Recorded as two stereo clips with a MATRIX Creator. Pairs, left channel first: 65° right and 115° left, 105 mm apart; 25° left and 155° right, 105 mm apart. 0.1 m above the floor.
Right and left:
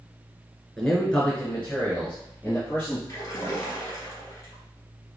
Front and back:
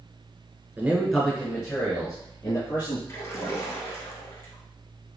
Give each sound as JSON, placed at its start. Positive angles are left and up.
{"t": 0.8, "sound": "a man speaking", "azimuth_deg": -150, "distance_m": 1.2}
{"t": 3.1, "sound": "a splash", "azimuth_deg": -25, "distance_m": 1.8}